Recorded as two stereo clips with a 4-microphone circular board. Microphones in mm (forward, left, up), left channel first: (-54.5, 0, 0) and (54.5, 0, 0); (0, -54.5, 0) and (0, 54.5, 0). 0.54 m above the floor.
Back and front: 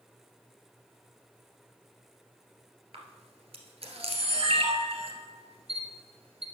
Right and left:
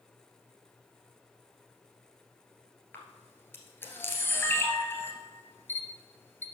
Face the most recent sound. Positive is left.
turn(degrees=-20)